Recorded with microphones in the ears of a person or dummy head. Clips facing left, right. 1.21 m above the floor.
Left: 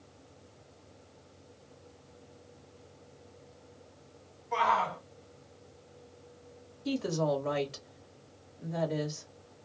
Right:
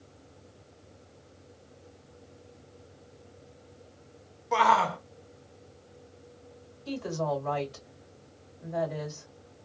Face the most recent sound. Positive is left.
turn(degrees=65)  # may be behind; listen again after turning